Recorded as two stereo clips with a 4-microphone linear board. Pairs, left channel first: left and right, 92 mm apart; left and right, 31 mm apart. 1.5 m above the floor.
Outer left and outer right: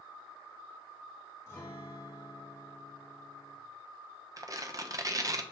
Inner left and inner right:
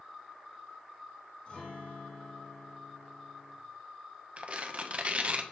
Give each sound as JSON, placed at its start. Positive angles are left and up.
{"t": 1.5, "sound": "a guitar", "side_deg": 30, "distance_m": 3.5}
{"t": 4.4, "sound": "tearing paper", "side_deg": -40, "distance_m": 0.7}